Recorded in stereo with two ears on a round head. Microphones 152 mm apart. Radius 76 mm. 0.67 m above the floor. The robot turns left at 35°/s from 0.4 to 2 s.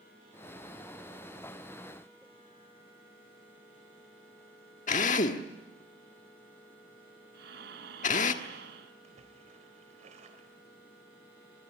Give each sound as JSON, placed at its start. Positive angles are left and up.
{"t": 4.9, "sound": "a drill", "side_deg": 45, "distance_m": 1.4}
{"t": 7.3, "sound": "breathing", "side_deg": -70, "distance_m": 2.5}
{"t": 9.0, "sound": "a splash", "side_deg": -45, "distance_m": 3.5}